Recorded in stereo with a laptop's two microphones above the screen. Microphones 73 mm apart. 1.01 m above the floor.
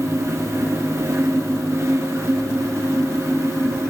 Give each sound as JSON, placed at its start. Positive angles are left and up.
{"t": 0.0, "sound": "a fan", "side_deg": -40, "distance_m": 0.8}